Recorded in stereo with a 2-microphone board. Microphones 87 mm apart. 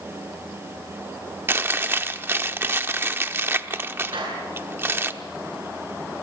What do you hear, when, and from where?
1.5 s chewing: 25° right (ahead or behind), 1.0 m
4.1 s a clap: 80° right, 8.5 m